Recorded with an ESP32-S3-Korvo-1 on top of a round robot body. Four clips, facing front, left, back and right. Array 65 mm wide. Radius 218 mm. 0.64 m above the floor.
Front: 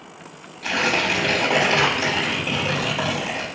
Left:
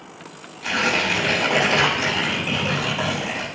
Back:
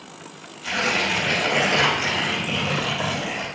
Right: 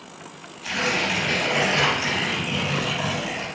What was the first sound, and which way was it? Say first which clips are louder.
Tearing paper: left 3 dB, front 2 dB; 35° left.